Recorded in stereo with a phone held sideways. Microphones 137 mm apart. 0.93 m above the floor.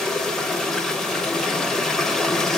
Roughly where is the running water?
Centre.